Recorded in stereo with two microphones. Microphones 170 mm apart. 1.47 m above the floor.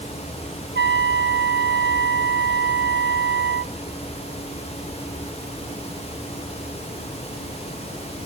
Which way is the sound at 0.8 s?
85° right.